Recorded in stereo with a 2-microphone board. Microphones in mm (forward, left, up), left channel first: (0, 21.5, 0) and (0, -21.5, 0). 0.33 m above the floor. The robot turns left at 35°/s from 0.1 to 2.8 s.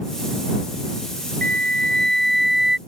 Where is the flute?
35° left; by 2.8 s 10° right.